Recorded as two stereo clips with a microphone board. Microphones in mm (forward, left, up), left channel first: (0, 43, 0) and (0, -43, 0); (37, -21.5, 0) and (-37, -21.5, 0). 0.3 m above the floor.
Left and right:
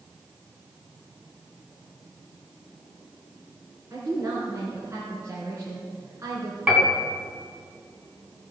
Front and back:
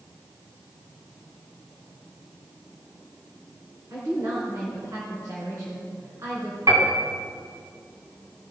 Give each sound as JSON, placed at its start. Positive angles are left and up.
{"t": 3.9, "sound": "a woman speaking", "azimuth_deg": -140, "distance_m": 3.0}
{"t": 6.7, "sound": "a piano", "azimuth_deg": -165, "distance_m": 2.5}